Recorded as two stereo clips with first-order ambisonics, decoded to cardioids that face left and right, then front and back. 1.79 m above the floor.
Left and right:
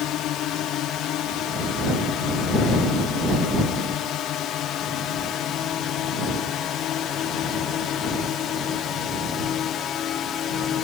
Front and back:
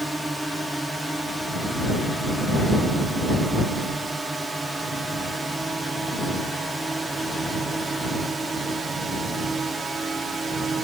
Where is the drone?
95° left; by 10.8 s 115° left.